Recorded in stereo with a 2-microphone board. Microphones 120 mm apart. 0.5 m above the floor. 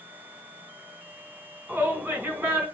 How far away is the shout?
About 3.5 m.